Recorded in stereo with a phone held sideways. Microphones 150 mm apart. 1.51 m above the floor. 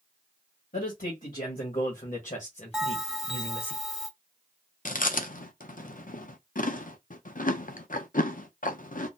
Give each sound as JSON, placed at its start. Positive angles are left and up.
{"t": 0.7, "sound": "a man speaking", "side_deg": 80, "distance_m": 1.8}
{"t": 2.7, "sound": "a bell", "side_deg": -5, "distance_m": 1.1}
{"t": 4.8, "sound": "chewing", "side_deg": 65, "distance_m": 0.5}